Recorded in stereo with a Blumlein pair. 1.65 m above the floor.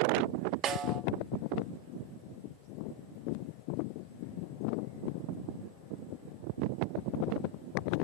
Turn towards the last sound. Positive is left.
turn(degrees=-30)